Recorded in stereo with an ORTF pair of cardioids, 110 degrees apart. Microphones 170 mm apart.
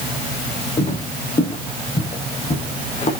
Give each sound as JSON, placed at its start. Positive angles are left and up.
{"t": 0.8, "sound": "footsteps", "azimuth_deg": 40, "distance_m": 6.0}